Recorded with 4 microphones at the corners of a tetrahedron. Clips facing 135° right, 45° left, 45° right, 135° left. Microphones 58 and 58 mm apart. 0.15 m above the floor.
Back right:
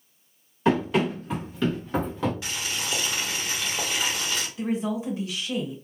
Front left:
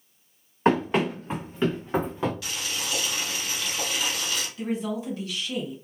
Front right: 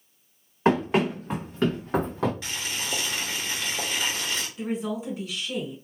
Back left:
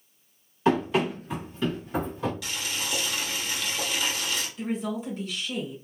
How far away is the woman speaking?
About 1.1 m.